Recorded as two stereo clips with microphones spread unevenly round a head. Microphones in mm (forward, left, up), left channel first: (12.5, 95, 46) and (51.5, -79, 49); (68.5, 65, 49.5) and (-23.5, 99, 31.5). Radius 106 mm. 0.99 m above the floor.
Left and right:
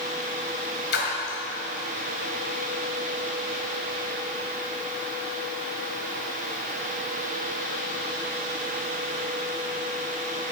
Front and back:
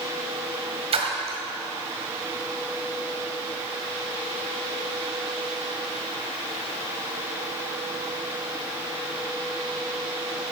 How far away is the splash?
About 1.7 m.